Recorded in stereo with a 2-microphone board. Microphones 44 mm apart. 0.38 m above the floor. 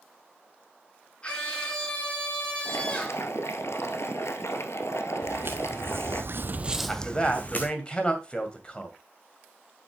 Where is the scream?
25° left (ahead or behind), 6 m.